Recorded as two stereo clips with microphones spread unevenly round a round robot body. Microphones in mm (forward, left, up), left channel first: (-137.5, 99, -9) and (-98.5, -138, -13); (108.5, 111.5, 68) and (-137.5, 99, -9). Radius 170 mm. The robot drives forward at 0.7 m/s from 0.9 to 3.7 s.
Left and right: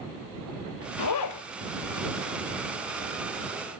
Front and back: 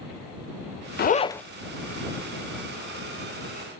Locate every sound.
1.0 s a zipper: 60° left, 0.6 m; by 1.4 s 95° left, 0.5 m